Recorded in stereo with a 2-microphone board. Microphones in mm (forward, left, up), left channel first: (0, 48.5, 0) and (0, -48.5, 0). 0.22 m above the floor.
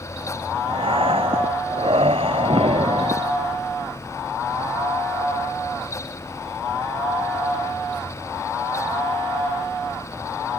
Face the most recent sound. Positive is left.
turn(degrees=-75)  # may be behind; listen again after turning